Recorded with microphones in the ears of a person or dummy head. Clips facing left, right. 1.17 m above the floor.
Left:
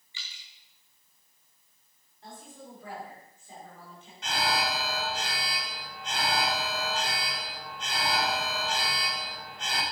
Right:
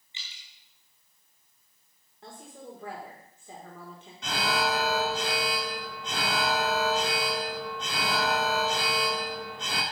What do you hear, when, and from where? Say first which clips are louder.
0.1 s dripping: even; 20° right (ahead or behind), 1.7 m
2.2 s a woman speaking: right 2 dB; 55° right (ahead or behind), 4 m
4.2 s an alarm: right 2 dB; 65° right (ahead or behind), 1.3 m